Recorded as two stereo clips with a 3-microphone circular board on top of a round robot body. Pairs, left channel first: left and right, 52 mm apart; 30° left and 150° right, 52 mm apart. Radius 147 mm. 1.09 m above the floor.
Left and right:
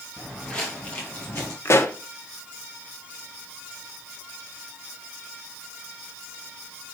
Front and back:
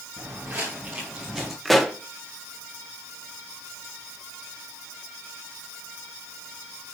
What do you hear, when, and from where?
0.2 s footsteps: 160° left, 2 m; by 1.6 s 120° left, 1.6 m
1.6 s a pop: 120° left, 1.1 m